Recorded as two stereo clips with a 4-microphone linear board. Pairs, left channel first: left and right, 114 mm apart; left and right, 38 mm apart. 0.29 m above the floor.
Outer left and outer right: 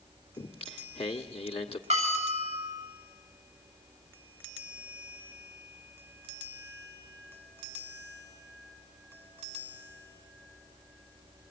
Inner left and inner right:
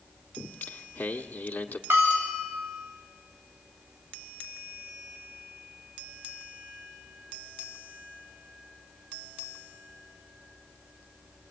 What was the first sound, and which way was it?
Singing, 60° left (ahead or behind).